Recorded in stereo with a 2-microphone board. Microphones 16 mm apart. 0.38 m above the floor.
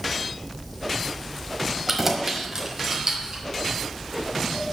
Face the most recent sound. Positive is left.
turn(degrees=-40)  # may be behind; listen again after turning